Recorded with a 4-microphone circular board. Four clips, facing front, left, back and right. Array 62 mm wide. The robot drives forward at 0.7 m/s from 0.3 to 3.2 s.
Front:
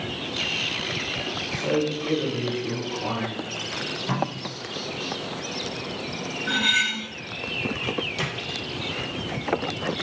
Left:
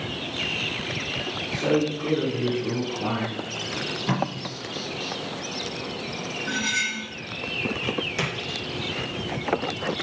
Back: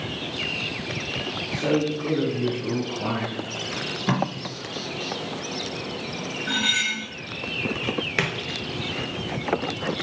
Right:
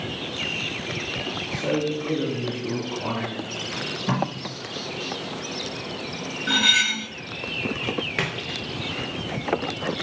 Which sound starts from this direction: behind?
Tape being pulled, at 3.8 s.